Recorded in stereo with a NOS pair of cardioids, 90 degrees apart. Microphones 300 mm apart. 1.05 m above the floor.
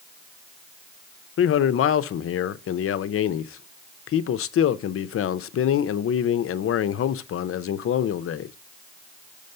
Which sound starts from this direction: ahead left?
A man speaking, at 1.4 s.